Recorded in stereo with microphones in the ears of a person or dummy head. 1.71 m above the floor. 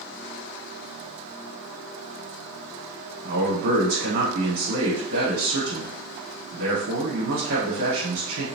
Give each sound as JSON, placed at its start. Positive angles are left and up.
{"t": 3.2, "sound": "a man speaking", "side_deg": -55, "distance_m": 1.0}